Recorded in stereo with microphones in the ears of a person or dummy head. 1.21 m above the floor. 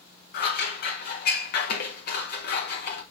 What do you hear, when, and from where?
0.3 s scissors: 50° left (ahead or behind), 1.5 m